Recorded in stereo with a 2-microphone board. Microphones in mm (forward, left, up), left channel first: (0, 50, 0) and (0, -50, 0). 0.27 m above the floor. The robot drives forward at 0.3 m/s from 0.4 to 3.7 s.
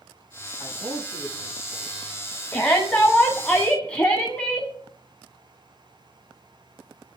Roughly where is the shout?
Centre.